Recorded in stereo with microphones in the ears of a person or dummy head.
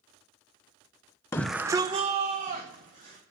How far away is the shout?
About 0.5 m.